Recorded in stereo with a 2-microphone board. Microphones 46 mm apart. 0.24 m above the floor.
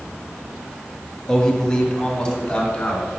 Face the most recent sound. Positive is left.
turn(degrees=20)  # may be behind; listen again after turning